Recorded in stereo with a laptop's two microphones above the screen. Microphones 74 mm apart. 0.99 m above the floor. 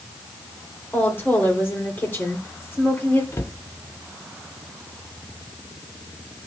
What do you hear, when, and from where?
0.9 s a woman speaking: 30° left (ahead or behind), 3.5 m
3.3 s a cupboard door: 40° left (ahead or behind), 0.9 m